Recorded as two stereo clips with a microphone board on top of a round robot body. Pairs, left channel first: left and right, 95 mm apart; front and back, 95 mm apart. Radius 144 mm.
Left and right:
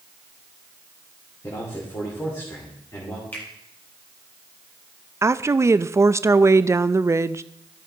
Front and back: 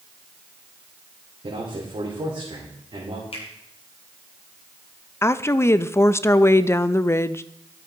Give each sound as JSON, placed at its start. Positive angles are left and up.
{"t": 1.4, "sound": "a man speaking", "azimuth_deg": 145, "distance_m": 2.5}
{"t": 3.3, "sound": "a finger snap", "azimuth_deg": 20, "distance_m": 3.0}
{"t": 5.2, "sound": "a woman speaking", "azimuth_deg": -45, "distance_m": 0.5}